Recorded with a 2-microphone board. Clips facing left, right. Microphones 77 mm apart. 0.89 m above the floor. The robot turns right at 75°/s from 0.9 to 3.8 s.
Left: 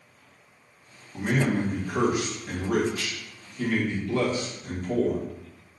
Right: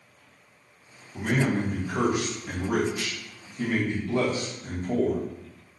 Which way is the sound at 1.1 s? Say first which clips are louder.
Even; 30° left (ahead or behind).